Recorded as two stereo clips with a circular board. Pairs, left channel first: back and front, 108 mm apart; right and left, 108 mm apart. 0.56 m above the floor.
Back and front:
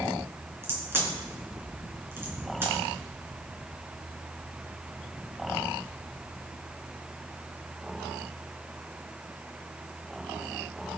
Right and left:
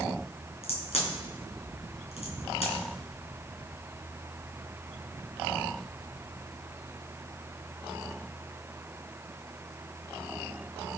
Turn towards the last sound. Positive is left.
turn(degrees=-70)